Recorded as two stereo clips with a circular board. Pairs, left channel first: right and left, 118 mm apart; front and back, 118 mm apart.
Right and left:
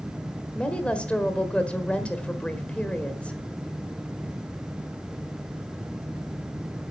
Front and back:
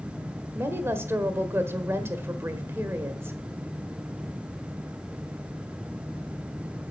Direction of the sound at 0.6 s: 155° right.